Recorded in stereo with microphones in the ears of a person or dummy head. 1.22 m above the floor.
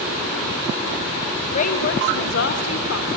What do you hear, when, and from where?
1.5 s a woman speaking: 45° left (ahead or behind), 1.5 m; by 3.1 s 80° left, 2 m